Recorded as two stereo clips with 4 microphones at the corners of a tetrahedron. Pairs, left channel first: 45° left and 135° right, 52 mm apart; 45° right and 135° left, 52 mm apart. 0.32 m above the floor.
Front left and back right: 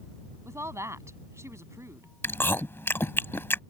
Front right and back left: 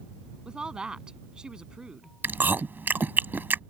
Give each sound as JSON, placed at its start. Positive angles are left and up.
{"t": 0.5, "sound": "a woman speaking", "azimuth_deg": -150}
{"t": 2.2, "sound": "chewing", "azimuth_deg": 85}